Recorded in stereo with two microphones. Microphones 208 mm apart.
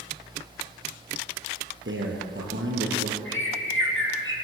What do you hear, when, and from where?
1.9 s a man speaking: 70° right (ahead or behind), 4.5 m
3.2 s a bird: 70° left (ahead or behind), 4 m